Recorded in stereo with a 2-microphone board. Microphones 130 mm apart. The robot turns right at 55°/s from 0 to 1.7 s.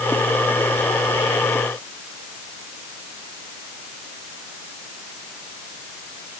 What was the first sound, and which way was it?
Only background noise.